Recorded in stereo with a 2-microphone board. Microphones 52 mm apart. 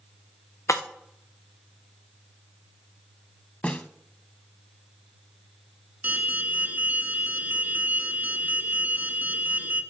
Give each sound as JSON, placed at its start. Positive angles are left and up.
{"t": 0.7, "sound": "breaking glass", "side_deg": 80, "distance_m": 1.6}
{"t": 3.6, "sound": "a snare drum", "side_deg": 25, "distance_m": 0.8}
{"t": 6.0, "sound": "an alarm", "side_deg": -35, "distance_m": 1.6}